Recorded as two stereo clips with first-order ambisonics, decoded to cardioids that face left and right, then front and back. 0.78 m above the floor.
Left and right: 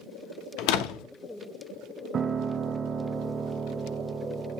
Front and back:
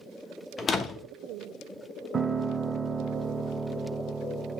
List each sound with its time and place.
0.6 s a door slam: 70° left, 0.7 m
2.1 s a piano: 125° right, 0.5 m